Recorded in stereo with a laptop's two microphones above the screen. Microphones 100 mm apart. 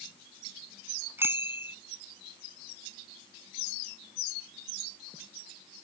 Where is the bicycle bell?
20° right (ahead or behind).